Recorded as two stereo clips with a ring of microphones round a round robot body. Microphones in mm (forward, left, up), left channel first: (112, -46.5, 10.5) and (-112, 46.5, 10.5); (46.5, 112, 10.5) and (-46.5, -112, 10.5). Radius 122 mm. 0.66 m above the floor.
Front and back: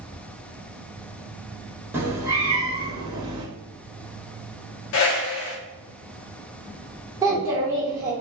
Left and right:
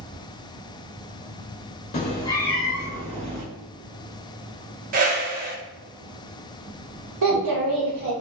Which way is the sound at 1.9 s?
85° left.